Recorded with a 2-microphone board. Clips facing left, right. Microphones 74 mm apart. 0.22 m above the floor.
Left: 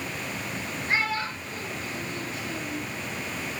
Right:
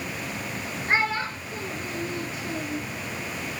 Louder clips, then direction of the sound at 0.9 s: Right 3 dB; 35° right (ahead or behind).